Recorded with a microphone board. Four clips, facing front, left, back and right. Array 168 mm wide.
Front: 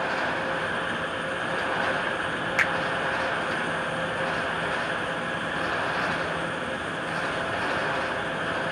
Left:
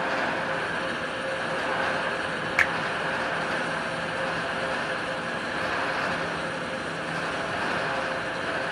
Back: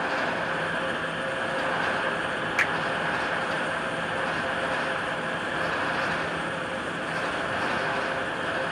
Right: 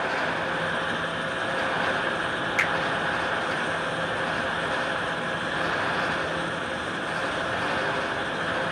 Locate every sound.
2.6 s a finger snap: 85° left, 0.9 m